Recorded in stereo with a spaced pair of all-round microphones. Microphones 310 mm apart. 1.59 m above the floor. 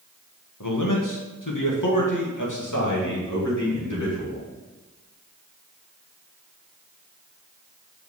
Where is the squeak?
No squeak in this recording.